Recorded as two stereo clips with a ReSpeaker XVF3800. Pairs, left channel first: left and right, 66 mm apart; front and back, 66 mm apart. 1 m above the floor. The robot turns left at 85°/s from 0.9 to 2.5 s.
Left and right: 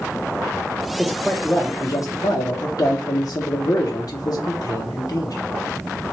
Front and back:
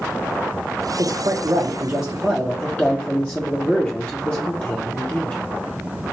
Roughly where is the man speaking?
Behind.